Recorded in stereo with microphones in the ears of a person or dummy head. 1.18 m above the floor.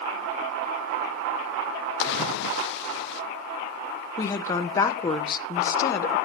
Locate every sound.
2.0 s a splash: 60° left (ahead or behind), 0.6 m
4.2 s a woman speaking: 20° left (ahead or behind), 0.7 m